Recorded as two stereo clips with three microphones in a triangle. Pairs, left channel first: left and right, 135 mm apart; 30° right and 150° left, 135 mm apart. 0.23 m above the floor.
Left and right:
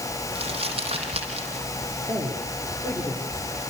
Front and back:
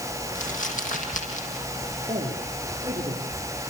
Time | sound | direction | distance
0.3 | crumpling | 45° right | 7 m
2.1 | a man speaking | 155° right | 8.5 m